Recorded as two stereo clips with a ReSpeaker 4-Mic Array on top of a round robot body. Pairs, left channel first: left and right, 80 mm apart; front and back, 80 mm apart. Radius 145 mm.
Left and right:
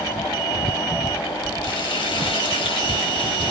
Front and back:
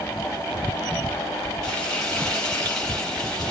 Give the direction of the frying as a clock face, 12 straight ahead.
9 o'clock.